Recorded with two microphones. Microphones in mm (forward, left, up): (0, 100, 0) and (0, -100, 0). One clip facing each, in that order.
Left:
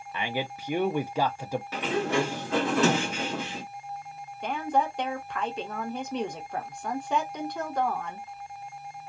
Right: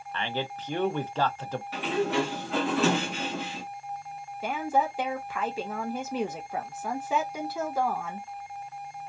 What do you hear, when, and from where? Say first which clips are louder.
0.1 s a man speaking: left 1 dB; 10° left (ahead or behind), 0.6 m
1.7 s a sliding door: right 1 dB; 80° left, 1.2 m
4.4 s a woman speaking: even; 5° right (ahead or behind), 0.7 m